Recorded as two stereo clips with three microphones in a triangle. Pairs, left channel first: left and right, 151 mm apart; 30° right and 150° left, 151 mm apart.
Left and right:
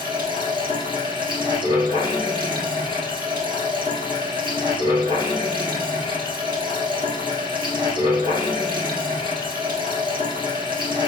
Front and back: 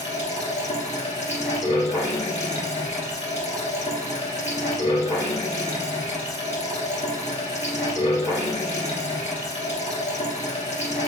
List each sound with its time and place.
0.0 s running water: 45° right, 1.6 m